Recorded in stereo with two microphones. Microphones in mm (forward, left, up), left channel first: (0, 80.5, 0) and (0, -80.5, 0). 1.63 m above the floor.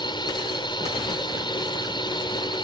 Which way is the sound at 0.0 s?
30° left (ahead or behind).